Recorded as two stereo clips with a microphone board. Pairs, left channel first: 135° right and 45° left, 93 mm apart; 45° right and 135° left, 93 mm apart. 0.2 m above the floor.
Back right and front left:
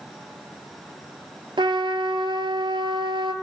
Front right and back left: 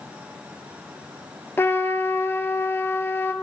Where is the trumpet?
20° left, 0.7 m.